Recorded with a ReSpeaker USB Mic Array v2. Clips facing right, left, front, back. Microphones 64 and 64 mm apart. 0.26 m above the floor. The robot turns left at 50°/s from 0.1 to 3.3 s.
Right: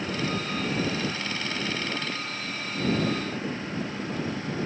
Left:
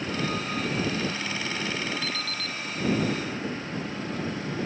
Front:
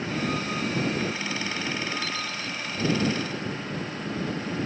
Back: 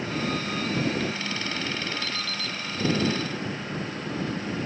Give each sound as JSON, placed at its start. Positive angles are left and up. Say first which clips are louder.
{"t": 2.0, "sound": "an alarm clock", "louder": "even, front 1 dB", "azimuth_deg": 90}